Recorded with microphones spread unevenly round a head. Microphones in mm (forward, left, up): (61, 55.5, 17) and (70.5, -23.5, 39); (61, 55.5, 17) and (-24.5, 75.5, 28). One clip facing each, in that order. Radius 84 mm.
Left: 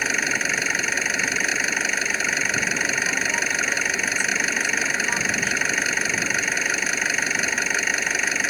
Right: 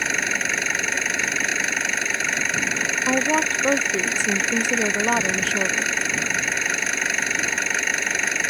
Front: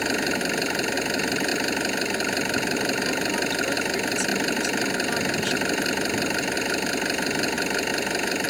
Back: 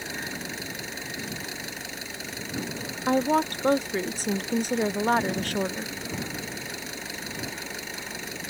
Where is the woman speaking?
130° right.